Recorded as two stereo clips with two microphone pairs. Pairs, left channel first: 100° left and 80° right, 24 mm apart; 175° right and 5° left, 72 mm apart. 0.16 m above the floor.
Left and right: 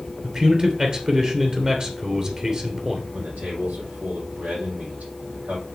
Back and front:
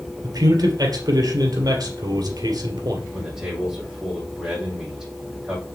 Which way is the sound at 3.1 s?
80° right.